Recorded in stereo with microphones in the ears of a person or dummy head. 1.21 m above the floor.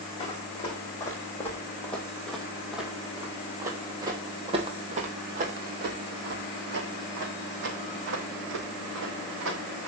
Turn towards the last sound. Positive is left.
turn(degrees=-75)  # may be behind; listen again after turning